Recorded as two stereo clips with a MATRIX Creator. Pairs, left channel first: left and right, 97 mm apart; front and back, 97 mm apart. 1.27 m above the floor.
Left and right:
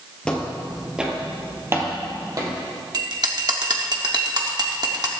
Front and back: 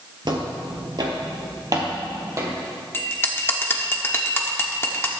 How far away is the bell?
About 1.3 m.